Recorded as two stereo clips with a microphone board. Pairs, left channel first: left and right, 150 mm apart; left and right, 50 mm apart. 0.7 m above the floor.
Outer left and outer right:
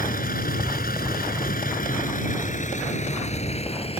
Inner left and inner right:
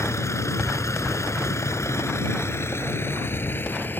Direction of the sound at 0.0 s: 70° left (ahead or behind).